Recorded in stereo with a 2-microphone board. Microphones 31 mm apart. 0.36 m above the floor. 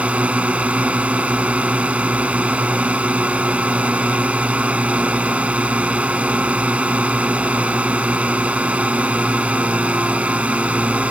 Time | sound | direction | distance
0.0 | a drone | 50° right (ahead or behind) | ?